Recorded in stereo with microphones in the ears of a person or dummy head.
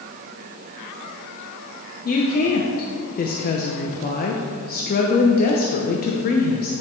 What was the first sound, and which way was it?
A woman speaking, 45° left (ahead or behind).